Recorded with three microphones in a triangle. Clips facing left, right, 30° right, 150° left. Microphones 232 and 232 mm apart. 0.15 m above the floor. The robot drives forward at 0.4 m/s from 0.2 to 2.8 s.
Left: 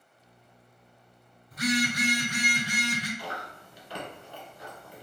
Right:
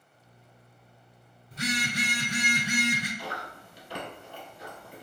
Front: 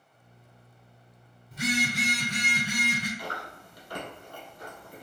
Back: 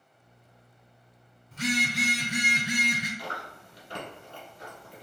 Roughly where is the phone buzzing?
Right.